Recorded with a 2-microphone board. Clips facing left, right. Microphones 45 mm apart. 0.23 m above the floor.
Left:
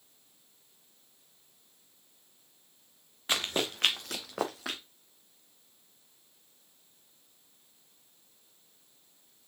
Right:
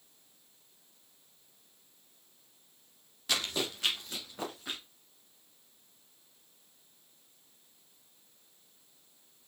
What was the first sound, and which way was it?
Running footsteps, 25° left (ahead or behind).